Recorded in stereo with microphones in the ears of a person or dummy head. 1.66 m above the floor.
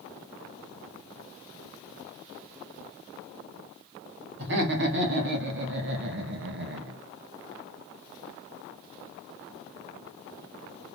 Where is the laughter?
65° right (ahead or behind), 3 m; by 7.0 s 60° right (ahead or behind), 1.5 m.